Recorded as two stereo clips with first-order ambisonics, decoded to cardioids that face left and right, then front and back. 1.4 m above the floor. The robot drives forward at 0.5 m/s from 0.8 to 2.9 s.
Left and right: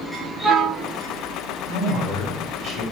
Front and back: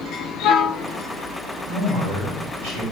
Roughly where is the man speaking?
Behind right.